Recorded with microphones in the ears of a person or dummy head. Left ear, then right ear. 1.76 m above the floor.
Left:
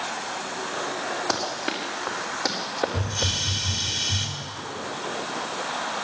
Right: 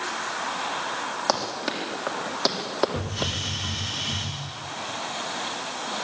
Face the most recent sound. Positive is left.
turn(degrees=-40)  # may be behind; listen again after turning